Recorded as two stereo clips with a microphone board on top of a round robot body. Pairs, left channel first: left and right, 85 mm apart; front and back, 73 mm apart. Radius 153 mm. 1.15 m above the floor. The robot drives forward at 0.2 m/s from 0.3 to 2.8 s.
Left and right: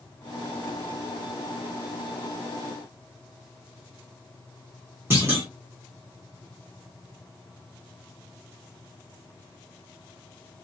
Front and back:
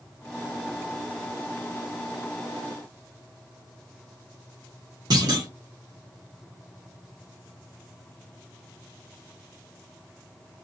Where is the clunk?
155° right, 1.2 m.